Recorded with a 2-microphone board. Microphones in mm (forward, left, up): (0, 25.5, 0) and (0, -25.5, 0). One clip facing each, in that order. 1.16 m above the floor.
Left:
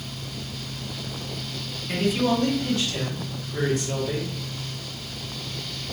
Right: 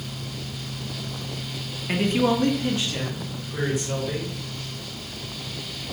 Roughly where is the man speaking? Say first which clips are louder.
Right 1 dB; right.